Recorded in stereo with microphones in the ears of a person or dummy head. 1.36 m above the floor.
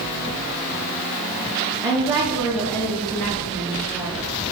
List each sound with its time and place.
1.8 s a woman speaking: 15° right (ahead or behind), 1.4 m; by 4.3 s 5° left (ahead or behind), 3 m